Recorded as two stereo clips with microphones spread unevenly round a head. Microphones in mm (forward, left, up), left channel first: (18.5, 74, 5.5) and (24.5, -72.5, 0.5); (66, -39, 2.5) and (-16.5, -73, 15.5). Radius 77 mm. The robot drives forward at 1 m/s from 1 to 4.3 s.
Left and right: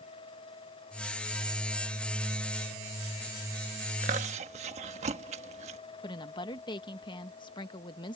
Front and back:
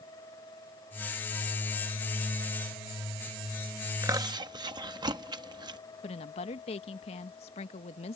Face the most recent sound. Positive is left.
turn(degrees=30)